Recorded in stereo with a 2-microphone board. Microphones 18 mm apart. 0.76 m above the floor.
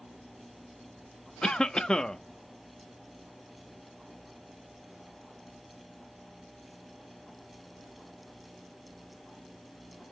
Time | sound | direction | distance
1.4 | a cough | 45° left (ahead or behind) | 0.8 m